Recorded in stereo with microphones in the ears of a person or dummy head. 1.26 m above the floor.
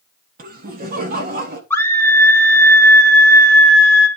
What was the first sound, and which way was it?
Laughter, 45° right (ahead or behind).